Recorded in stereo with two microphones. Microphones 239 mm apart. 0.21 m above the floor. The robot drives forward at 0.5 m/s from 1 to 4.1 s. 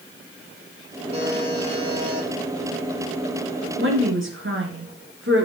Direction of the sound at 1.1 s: 25° right (ahead or behind).